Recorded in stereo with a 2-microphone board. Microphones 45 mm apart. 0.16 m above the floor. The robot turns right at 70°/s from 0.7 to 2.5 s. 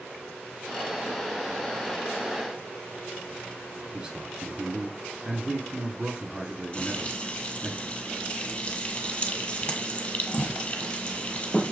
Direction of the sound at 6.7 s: 25° left (ahead or behind).